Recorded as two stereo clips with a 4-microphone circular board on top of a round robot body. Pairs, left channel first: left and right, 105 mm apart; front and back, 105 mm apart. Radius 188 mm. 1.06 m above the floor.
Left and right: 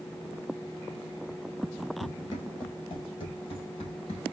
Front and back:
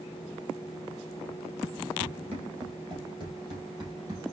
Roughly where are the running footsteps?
Behind left.